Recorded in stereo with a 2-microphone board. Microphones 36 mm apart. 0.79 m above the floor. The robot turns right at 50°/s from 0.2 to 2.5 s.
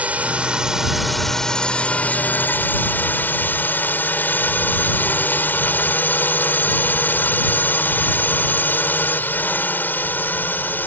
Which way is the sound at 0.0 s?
45° right.